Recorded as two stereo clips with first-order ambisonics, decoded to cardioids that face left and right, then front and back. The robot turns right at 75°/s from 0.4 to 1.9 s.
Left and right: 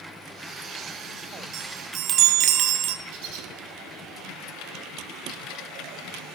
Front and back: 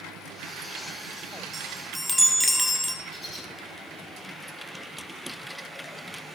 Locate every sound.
1.5 s a chime: 115° right, 0.9 m; by 3.0 s 85° right, 0.9 m
3.0 s a bird: 80° right, 3 m